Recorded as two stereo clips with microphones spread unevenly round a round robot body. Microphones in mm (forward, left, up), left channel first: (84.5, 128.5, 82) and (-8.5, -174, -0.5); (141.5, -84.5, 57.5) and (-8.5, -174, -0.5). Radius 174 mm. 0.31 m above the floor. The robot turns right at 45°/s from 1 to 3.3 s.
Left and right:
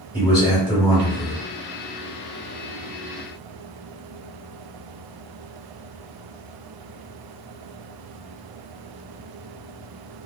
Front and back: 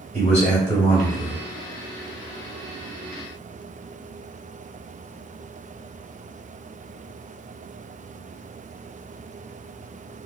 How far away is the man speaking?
About 1.8 m.